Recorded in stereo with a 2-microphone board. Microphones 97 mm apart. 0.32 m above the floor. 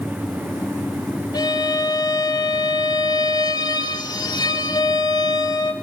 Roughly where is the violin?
Left.